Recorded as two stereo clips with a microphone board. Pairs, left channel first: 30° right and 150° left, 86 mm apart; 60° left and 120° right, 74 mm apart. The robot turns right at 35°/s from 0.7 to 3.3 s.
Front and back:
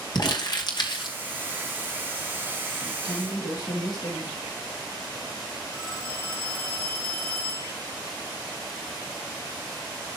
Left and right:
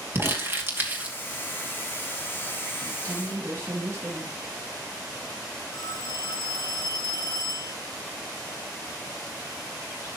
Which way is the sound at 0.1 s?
60° right.